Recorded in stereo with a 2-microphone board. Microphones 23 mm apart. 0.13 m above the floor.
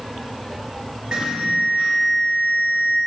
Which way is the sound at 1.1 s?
35° right (ahead or behind).